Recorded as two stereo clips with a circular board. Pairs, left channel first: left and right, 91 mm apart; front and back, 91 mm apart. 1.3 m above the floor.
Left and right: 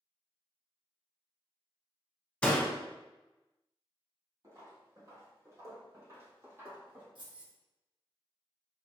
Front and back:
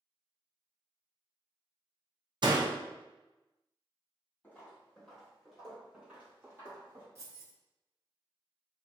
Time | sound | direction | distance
2.4 | a door slam | 165° left | 0.6 m
4.4 | footsteps | 65° right | 1.7 m
7.2 | keys jangling | 120° right | 1.2 m